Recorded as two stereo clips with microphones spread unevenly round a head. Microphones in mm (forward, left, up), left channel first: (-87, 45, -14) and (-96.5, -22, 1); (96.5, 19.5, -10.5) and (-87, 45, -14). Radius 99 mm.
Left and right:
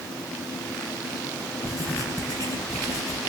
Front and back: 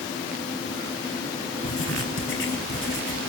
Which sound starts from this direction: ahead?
Writing, at 1.6 s.